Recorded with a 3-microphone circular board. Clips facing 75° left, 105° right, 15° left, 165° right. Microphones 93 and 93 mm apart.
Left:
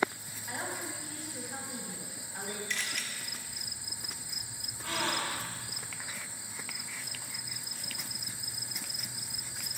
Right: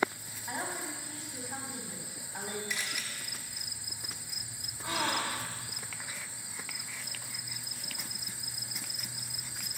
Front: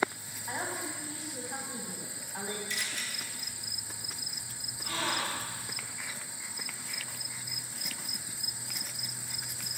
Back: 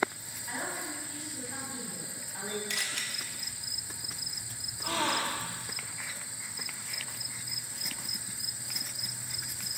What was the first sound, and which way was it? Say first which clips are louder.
A woman speaking: right 1 dB, front 1 dB; 45° right.